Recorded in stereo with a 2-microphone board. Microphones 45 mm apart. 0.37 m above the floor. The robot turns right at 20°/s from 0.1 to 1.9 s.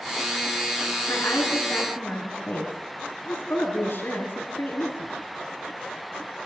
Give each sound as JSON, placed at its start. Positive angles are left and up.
{"t": 1.1, "sound": "a woman speaking", "side_deg": 75, "distance_m": 4.0}